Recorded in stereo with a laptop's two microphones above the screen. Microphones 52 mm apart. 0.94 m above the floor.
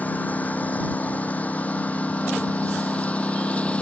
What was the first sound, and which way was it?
A lawn mower, 30° left (ahead or behind).